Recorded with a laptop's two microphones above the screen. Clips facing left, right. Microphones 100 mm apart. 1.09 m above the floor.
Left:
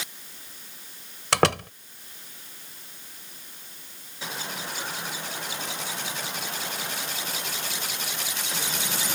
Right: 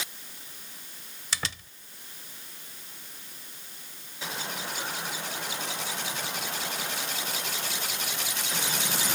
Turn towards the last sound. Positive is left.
turn(degrees=70)  # may be behind; listen again after turning